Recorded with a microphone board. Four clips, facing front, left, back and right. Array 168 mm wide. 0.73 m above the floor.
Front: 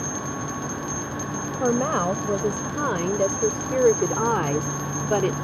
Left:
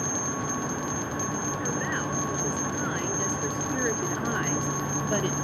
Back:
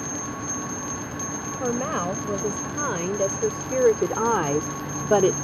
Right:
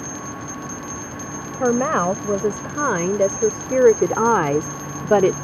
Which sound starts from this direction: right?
A woman speaking, at 1.6 s.